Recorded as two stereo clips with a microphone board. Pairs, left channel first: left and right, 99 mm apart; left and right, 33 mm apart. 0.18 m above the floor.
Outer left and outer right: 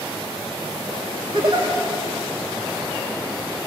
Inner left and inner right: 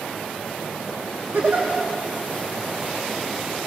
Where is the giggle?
50° right (ahead or behind), 8 m.